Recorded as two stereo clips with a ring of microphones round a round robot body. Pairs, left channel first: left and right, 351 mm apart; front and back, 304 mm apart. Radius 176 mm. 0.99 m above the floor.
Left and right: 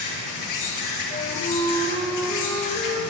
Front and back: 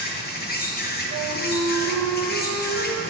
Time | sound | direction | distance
0.0 | an insect | 55° left | 1.1 m
1.1 | a flute | 165° left | 1.1 m